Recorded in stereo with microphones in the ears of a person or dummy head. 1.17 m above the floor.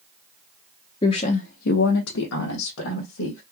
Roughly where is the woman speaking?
Left.